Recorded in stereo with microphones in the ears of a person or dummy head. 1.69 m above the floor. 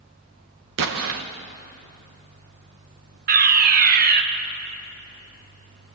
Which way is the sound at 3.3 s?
50° right (ahead or behind).